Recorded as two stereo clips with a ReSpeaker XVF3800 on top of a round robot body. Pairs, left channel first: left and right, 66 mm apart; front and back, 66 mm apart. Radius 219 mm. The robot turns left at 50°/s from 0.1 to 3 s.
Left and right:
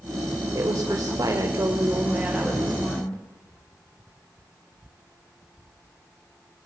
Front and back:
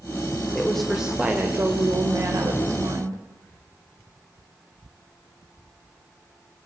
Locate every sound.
0.6 s a woman speaking: 75° right, 2.5 m; by 3.2 s 160° left, 2.5 m